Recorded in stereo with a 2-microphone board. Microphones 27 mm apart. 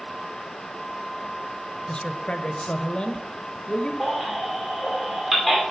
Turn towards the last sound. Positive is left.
turn(degrees=-5)  # may be behind; listen again after turning